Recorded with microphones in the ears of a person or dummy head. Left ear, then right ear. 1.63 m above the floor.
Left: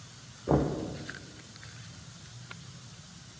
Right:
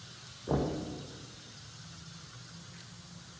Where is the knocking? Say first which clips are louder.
Left 5 dB; 20° left (ahead or behind), 0.5 m.